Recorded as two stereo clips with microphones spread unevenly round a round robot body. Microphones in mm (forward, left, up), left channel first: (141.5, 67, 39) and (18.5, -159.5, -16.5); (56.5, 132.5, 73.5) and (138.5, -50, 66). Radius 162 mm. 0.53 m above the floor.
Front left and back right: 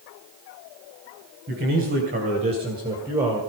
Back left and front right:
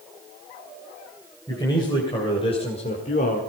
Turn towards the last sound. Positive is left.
turn(degrees=165)